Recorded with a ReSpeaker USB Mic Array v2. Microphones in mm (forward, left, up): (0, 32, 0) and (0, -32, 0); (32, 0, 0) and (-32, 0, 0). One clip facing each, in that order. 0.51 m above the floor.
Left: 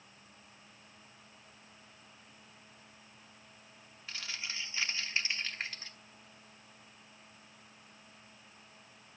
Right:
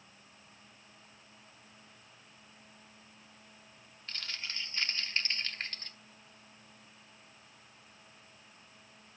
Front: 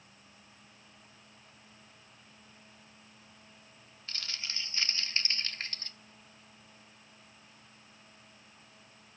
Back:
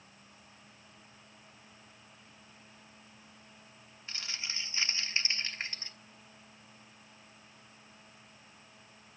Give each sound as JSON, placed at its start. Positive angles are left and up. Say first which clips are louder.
{"t": 4.1, "sound": "crumpling", "louder": "even, back 1 dB", "azimuth_deg": 160, "distance_m": 1.1}